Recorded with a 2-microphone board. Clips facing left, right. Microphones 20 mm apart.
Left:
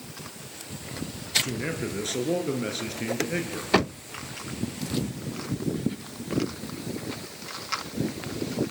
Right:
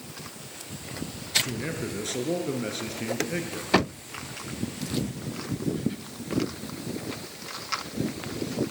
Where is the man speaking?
5° left (ahead or behind), 2.5 m.